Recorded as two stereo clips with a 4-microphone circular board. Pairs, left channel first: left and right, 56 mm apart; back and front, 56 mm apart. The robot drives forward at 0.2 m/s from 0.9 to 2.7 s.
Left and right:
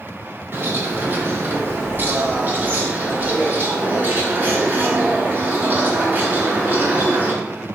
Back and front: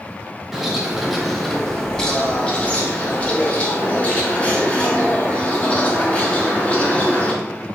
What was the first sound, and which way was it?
A bird, 85° right.